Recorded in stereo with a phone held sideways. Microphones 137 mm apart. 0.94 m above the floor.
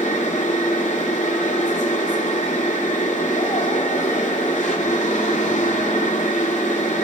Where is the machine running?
60° left (ahead or behind), 2.5 m.